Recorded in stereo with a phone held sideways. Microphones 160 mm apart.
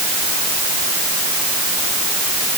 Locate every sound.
Only background noise.